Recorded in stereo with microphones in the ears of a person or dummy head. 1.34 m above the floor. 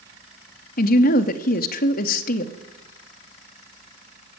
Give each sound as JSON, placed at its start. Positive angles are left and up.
{"t": 0.8, "sound": "a woman speaking", "side_deg": 50, "distance_m": 0.9}